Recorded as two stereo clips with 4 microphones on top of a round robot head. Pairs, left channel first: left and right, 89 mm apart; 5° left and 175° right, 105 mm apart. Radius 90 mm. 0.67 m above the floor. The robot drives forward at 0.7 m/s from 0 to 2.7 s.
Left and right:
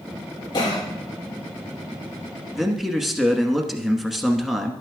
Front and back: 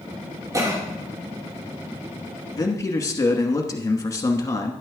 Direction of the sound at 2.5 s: 5° right.